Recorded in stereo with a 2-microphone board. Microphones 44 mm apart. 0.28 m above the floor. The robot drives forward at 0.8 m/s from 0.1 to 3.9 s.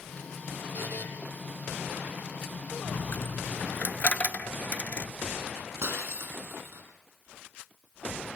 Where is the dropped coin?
85° left, 0.6 m; by 5.1 s 35° left (ahead or behind), 1.0 m.